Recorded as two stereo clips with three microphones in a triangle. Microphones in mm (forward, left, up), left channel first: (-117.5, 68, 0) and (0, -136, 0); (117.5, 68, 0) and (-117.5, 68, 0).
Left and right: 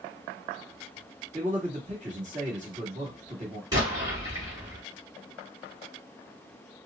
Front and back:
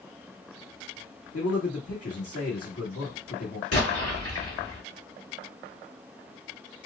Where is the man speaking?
5° right, 1.7 m.